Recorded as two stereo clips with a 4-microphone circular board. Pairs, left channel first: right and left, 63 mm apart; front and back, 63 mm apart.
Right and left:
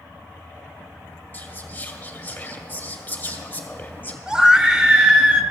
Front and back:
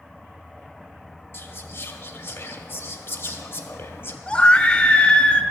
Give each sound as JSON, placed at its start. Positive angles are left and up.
{"t": 1.3, "sound": "whispering", "azimuth_deg": -40, "distance_m": 1.3}
{"t": 4.3, "sound": "a scream", "azimuth_deg": 35, "distance_m": 0.8}